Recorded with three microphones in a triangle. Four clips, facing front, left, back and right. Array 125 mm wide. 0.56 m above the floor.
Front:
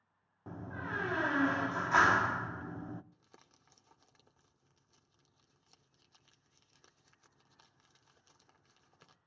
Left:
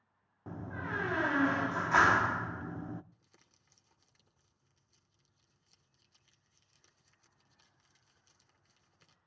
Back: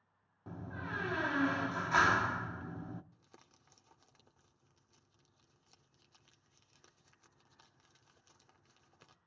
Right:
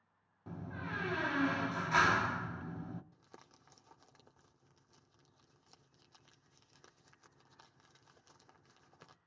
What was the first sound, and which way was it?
A door slam, 60° left.